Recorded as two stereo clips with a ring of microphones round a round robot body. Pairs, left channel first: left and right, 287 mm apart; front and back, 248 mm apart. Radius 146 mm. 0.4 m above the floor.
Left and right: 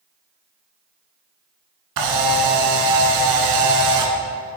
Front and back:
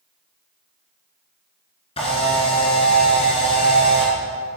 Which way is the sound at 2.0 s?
70° right.